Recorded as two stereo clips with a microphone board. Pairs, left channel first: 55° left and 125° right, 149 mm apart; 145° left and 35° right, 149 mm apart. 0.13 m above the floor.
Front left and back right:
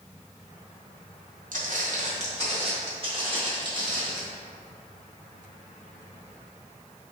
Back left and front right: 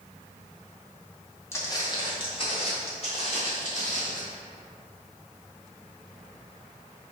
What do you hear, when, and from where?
1.5 s footsteps: 140° right, 1.2 m; by 4.2 s 175° left, 2.5 m